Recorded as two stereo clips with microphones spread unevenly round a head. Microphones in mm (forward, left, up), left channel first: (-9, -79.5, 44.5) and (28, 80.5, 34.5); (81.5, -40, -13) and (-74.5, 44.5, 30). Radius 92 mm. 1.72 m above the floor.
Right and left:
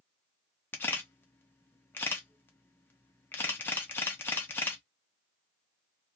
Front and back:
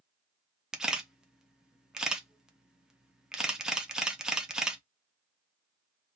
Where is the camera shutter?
160° right, 0.5 m.